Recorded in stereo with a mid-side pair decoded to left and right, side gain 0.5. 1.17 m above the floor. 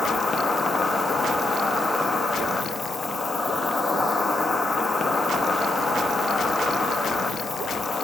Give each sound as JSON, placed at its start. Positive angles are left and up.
{"t": 0.0, "sound": "an insect", "azimuth_deg": 25, "distance_m": 1.1}